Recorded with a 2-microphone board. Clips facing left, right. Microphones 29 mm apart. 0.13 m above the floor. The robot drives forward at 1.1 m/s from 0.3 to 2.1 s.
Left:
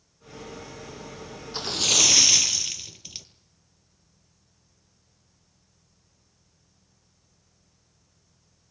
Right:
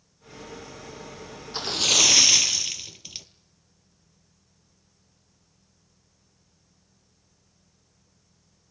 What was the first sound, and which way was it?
A splash, 5° right (ahead or behind).